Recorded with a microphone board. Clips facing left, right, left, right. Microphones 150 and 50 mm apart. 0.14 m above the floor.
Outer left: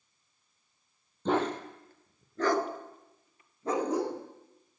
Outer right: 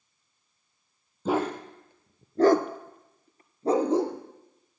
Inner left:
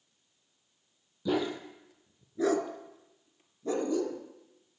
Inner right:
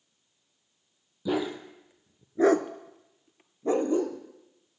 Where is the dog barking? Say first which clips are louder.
Outer right 2 dB, inner right 1 dB; 5° right (ahead or behind), 1.5 m; by 4.2 s 25° right (ahead or behind), 1.6 m.